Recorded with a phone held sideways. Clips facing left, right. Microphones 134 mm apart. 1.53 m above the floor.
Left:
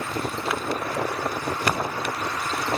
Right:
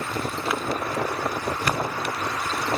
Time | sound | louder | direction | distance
1.7 | breathing | left 2 dB | 85° left | 1.2 m